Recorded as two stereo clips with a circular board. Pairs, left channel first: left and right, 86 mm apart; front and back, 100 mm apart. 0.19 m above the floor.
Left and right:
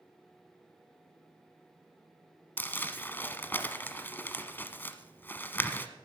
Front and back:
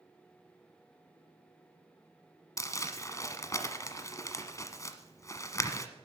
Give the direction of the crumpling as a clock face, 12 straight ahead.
11 o'clock.